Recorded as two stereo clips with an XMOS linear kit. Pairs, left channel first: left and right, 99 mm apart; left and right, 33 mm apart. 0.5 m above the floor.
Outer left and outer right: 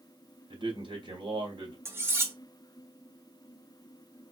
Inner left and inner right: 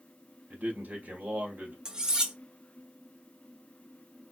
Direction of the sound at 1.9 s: 25° right (ahead or behind).